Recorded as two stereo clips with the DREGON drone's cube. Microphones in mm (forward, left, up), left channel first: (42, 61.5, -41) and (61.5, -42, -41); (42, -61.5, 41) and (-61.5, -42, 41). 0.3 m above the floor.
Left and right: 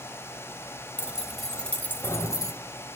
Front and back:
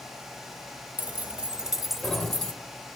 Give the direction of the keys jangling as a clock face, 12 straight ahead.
5 o'clock.